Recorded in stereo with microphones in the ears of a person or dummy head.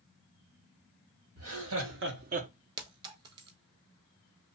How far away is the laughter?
About 1.6 m.